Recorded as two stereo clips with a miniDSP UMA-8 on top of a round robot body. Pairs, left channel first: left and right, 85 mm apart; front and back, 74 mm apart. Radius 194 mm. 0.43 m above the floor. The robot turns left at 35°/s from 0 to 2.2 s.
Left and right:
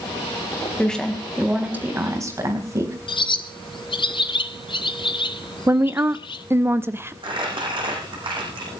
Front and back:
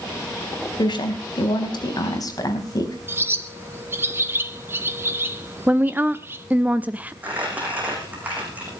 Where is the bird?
120° left, 0.8 m.